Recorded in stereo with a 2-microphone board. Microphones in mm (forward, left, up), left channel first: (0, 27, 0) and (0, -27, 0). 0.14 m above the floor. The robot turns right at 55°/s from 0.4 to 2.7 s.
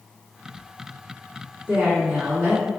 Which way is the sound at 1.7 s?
25° right (ahead or behind).